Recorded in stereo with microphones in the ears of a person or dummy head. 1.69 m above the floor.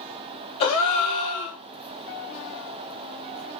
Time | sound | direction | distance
0.6 | a gasp | 25° left (ahead or behind) | 0.5 m